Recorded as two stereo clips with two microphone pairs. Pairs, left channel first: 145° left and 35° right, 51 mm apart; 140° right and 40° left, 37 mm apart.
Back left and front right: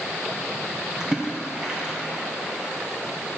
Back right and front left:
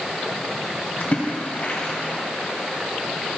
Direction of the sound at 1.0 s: 110° right.